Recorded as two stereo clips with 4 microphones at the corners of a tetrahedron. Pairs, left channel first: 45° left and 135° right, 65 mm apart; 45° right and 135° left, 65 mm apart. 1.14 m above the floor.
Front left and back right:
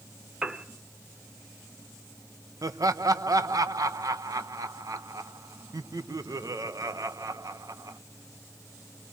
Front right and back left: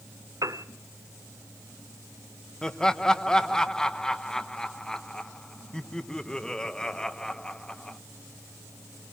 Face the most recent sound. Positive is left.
turn(degrees=-125)